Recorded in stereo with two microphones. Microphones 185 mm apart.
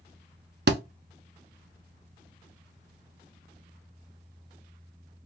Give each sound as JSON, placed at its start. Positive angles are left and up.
{"t": 0.7, "sound": "a thud", "side_deg": -65, "distance_m": 0.5}